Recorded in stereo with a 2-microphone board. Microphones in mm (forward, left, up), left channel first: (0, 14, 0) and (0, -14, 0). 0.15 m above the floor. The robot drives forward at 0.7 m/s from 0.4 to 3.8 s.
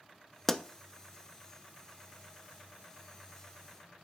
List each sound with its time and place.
0.5 s a pop: 15° left (ahead or behind), 0.7 m; by 0.6 s 10° left (ahead or behind), 0.8 m